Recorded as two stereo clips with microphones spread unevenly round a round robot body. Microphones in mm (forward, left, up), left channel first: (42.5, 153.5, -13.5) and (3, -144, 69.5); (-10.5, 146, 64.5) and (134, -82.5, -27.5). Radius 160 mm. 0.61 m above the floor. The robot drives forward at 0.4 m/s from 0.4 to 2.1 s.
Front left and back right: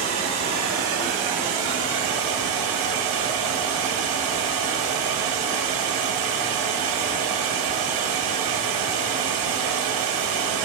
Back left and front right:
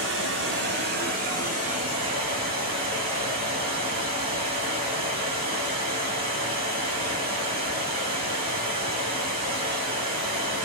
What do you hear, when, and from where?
0.0 s running water: 60° right, 1.0 m; by 10.7 s 110° right, 1.0 m